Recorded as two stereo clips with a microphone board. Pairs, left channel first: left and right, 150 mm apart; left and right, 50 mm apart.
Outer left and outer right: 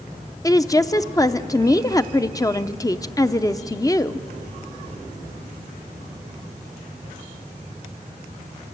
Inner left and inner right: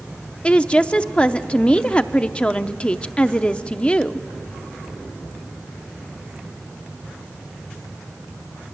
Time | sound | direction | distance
0.4 | a woman speaking | 25° left (ahead or behind) | 0.6 m